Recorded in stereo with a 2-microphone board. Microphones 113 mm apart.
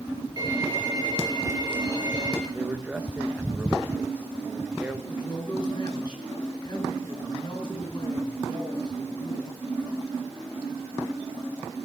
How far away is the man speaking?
About 1.3 m.